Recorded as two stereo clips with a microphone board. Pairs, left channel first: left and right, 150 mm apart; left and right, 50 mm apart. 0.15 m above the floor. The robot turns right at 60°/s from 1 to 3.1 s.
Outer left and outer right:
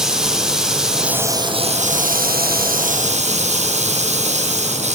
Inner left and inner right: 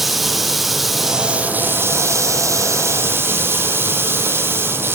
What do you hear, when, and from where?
0.0 s running water: 175° right, 3 m; by 5.0 s 50° right, 3 m